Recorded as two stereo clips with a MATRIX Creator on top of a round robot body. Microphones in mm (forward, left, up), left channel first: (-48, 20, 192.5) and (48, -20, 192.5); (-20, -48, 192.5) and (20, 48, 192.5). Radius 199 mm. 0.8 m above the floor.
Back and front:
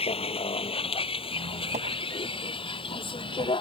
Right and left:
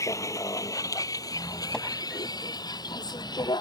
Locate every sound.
0.0 s a vehicle: 175° right; by 3.6 s 165° right
1.3 s a squeak: 30° right